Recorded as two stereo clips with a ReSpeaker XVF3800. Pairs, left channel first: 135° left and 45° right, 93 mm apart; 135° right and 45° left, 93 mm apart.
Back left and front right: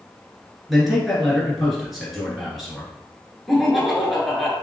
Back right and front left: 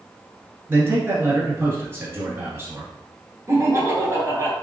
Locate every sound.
0.7 s a man speaking: 50° left, 1.5 m
3.5 s laughter: 45° left, 1.4 m